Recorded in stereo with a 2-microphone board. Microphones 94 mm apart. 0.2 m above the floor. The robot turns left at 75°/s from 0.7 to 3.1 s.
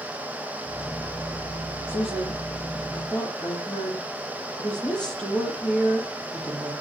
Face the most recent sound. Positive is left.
turn(degrees=10)